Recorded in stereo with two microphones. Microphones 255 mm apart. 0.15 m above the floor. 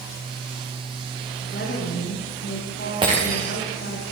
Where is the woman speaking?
45° left (ahead or behind), 9 m.